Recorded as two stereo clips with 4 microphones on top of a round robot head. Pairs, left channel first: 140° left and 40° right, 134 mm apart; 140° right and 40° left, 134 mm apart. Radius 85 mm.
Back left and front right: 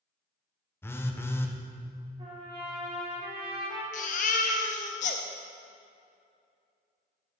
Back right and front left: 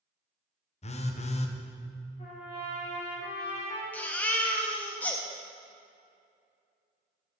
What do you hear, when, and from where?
0.8 s a phone buzzing: 155° right, 0.9 m
2.2 s a trumpet: 90° right, 2 m
3.9 s a baby crying: 145° left, 0.6 m